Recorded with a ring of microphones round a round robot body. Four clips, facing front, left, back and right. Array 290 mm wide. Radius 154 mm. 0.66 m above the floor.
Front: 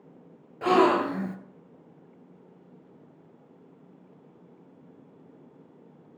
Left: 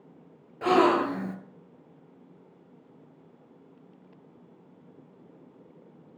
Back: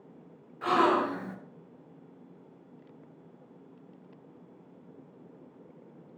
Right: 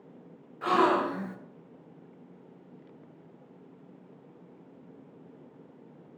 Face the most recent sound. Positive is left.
turn(degrees=45)